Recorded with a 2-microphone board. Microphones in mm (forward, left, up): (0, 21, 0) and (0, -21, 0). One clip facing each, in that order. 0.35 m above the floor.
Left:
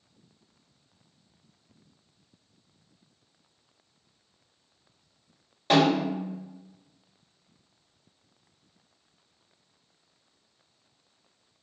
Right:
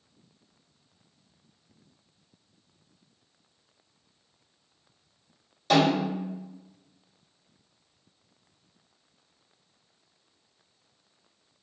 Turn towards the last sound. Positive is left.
turn(degrees=25)  # may be behind; listen again after turning